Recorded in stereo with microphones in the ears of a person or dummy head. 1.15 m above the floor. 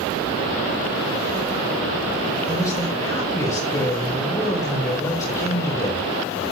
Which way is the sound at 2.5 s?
20° left (ahead or behind).